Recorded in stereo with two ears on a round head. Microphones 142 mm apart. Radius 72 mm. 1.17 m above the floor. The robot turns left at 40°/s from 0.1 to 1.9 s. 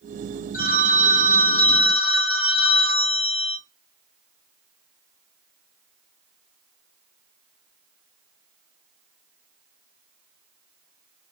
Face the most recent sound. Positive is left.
turn(degrees=5)